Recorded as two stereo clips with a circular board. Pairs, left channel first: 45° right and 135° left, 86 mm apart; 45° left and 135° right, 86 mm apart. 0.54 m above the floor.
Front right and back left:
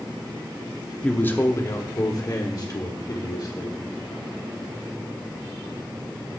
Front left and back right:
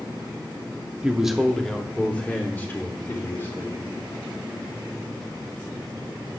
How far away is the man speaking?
About 0.7 m.